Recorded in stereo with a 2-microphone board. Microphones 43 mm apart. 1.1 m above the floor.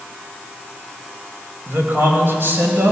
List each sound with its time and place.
1.7 s a man speaking: 50° right (ahead or behind), 5 m; by 2.9 s 60° right (ahead or behind), 5 m